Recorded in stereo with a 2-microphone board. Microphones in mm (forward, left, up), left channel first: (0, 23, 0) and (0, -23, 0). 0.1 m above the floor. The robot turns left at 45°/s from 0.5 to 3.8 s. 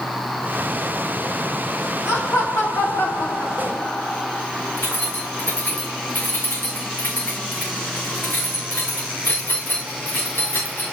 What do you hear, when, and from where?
2.0 s laughter: 120° left, 7.5 m; by 4.5 s 40° left, 7.5 m
4.8 s keys jangling: 50° left (ahead or behind), 6.5 m